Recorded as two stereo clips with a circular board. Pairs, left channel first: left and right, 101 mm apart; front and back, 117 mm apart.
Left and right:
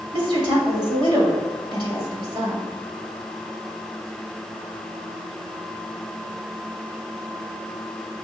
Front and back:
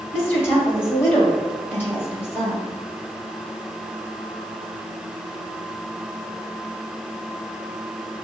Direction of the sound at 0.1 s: 65° right.